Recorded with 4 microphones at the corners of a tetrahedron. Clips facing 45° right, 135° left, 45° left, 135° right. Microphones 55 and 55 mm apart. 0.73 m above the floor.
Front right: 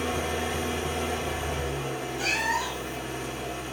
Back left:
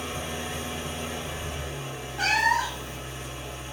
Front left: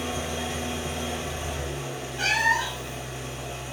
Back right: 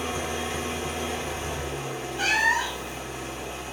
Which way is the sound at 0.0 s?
70° right.